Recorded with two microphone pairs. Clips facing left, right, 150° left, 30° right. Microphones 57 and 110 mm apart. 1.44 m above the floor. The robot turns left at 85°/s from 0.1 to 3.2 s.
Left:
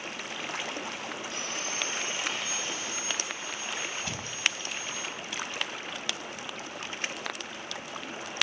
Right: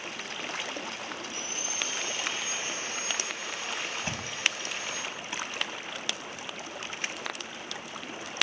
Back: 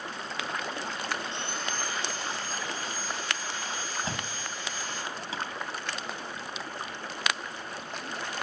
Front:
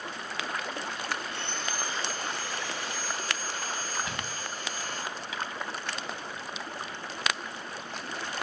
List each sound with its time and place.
1.3 s sawing: 85° left, 7.5 m; by 5.0 s 75° right, 7.5 m
4.0 s a thud: 150° right, 4.5 m